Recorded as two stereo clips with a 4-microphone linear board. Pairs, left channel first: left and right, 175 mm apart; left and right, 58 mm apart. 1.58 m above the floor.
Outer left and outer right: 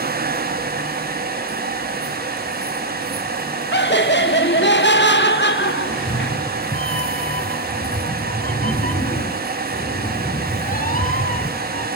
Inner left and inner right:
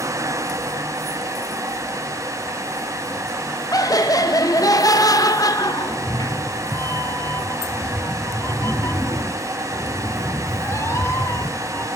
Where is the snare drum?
I don't hear a snare drum.